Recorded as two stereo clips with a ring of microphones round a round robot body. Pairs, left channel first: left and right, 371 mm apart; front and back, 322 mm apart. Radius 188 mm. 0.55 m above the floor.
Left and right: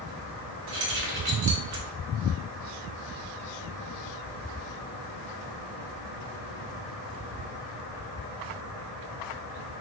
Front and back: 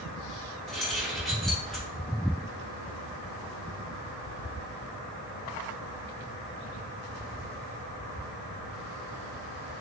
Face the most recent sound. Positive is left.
turn(degrees=-90)